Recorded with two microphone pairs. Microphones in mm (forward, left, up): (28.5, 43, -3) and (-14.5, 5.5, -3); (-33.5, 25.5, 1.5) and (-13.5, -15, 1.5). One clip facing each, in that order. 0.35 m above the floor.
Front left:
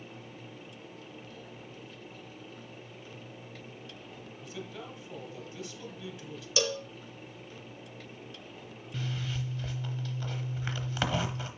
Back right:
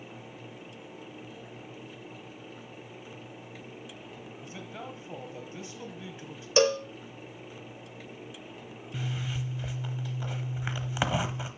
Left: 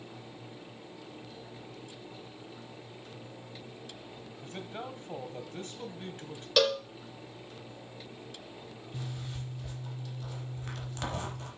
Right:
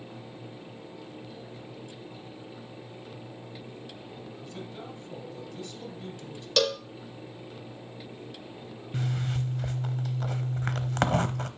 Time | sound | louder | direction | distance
4.4 | a man speaking | even, left 3 dB | 160° left | 1.7 m
6.6 | a cowbell | back right 8 dB, even | 165° right | 0.6 m
8.9 | a zipper | back right 1 dB, right 11 dB | 60° right | 0.8 m